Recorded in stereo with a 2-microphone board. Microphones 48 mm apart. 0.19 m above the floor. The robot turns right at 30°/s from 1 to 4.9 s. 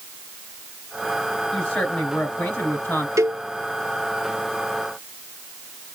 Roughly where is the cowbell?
Right.